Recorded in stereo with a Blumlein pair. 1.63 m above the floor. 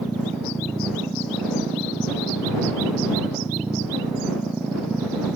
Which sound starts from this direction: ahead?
A machine running, at 0.0 s.